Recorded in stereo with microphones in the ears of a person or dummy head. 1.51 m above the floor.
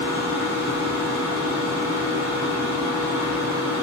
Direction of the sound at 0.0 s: 20° right (ahead or behind).